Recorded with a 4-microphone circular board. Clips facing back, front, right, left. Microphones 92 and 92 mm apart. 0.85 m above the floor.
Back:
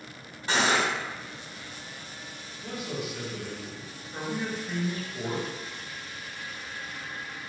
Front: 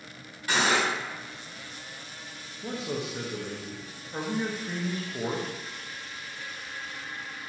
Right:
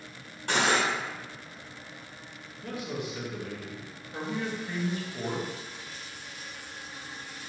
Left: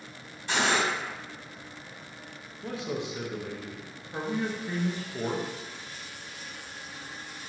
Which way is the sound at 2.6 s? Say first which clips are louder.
Front 2 dB, left 2 dB; 40° left.